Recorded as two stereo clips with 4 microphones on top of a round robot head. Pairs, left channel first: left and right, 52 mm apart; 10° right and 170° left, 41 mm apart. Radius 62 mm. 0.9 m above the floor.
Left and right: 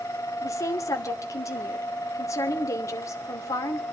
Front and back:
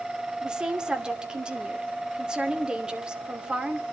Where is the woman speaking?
105° left, 2.5 m.